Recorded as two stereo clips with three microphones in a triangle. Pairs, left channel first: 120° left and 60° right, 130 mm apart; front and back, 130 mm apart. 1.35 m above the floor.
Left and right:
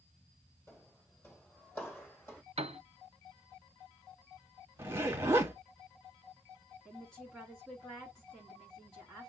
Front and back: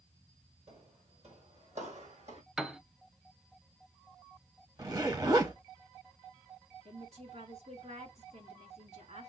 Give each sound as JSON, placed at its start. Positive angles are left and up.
{"t": 0.7, "sound": "footsteps", "azimuth_deg": -170, "distance_m": 2.5}
{"t": 2.6, "sound": "a piano", "azimuth_deg": -95, "distance_m": 0.6}
{"t": 4.8, "sound": "a zipper", "azimuth_deg": -125, "distance_m": 0.9}
{"t": 6.8, "sound": "a woman speaking", "azimuth_deg": -155, "distance_m": 2.5}